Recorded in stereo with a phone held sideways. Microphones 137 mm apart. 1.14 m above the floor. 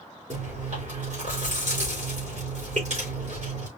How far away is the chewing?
About 3 m.